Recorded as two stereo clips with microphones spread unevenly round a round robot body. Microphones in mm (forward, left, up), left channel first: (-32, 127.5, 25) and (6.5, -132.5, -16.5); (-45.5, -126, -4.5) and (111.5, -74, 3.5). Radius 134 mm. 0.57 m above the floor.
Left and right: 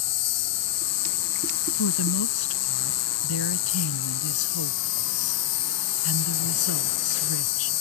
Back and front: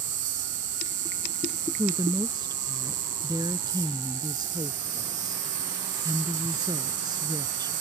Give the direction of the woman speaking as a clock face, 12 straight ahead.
9 o'clock.